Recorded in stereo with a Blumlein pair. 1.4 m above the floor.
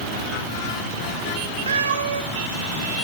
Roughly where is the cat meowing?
Ahead right.